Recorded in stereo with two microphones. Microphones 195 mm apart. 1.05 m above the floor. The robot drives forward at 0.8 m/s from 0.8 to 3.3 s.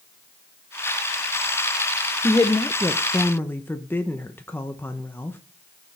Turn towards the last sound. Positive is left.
turn(degrees=10)  # may be behind; listen again after turning